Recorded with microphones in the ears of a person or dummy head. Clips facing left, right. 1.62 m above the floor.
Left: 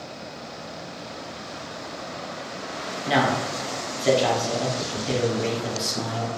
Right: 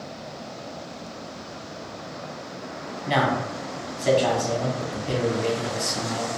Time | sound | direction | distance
3.1 | a man speaking | 5° left (ahead or behind) | 0.8 m